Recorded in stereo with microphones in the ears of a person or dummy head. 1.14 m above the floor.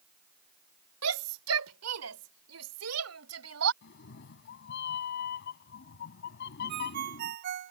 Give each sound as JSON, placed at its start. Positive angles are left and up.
{"t": 1.0, "sound": "a shout", "side_deg": -80}
{"t": 3.8, "sound": "a cat meowing", "side_deg": 60}
{"t": 6.7, "sound": "a ringtone", "side_deg": -55}